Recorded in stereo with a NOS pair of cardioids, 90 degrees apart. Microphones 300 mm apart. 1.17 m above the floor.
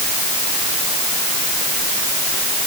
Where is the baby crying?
No baby crying in this recording.